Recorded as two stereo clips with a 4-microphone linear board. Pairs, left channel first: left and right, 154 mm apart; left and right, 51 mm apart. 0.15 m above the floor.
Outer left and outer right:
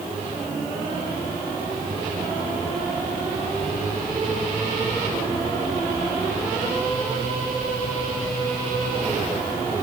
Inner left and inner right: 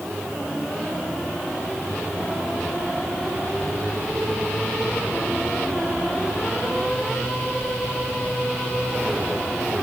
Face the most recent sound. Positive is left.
No sound to turn to.